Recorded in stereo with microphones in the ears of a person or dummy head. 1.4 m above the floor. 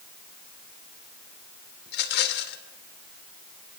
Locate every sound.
1.9 s a rattle: 60° left (ahead or behind), 1.8 m